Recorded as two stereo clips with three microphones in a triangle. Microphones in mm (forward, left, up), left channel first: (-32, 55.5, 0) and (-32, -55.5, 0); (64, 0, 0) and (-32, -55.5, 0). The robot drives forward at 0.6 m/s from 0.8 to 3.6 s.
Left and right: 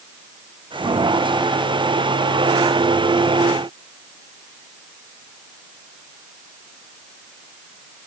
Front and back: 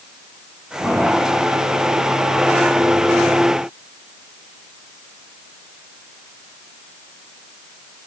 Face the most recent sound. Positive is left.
No sound to turn to.